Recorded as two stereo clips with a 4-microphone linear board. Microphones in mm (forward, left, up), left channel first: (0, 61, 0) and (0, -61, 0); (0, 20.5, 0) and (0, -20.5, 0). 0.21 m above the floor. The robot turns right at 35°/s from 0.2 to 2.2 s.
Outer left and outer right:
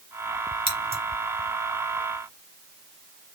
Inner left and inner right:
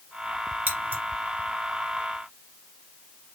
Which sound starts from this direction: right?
Scissors, at 0.7 s.